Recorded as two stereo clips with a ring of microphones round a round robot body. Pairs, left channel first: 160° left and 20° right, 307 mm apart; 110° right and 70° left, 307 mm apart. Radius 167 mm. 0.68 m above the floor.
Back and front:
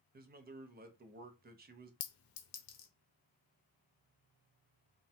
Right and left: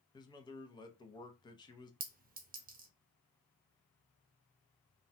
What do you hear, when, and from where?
0.1 s a man speaking: 50° right, 0.6 m
2.0 s a clink: 125° left, 0.7 m